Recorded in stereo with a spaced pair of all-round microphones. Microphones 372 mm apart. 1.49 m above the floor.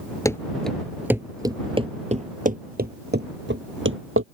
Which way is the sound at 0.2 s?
10° left (ahead or behind).